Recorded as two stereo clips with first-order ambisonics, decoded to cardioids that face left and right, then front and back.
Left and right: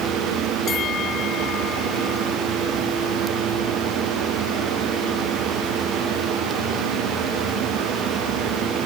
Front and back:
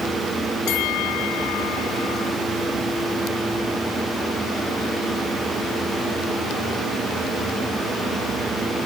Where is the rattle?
I don't hear a rattle.